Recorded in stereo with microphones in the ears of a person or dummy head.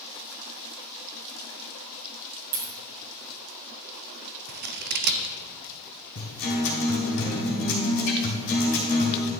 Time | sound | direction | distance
2.5 | a dropped coin | 50° right (ahead or behind) | 1.7 m
4.5 | scissors | 45° right (ahead or behind) | 0.6 m
6.2 | a guitar | 60° left (ahead or behind) | 2.5 m